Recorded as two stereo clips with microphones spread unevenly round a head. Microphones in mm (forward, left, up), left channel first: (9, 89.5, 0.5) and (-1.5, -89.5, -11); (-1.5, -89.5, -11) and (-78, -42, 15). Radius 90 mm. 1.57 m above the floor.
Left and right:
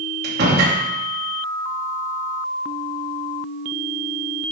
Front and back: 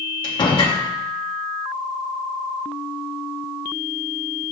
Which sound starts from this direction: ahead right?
A door slam, at 0.2 s.